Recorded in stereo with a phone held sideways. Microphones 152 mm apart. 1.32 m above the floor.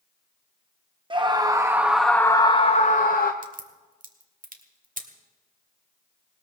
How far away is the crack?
About 1.6 m.